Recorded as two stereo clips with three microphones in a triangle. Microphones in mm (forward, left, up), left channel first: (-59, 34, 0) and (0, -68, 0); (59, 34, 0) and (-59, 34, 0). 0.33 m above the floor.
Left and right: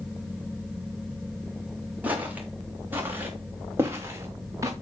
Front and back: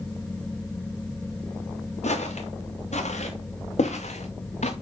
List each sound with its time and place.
2.0 s footsteps: 15° left, 4 m; by 4.7 s straight ahead, 2 m